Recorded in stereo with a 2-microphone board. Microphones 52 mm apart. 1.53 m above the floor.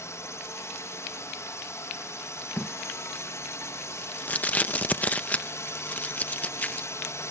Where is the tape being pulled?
30° left (ahead or behind).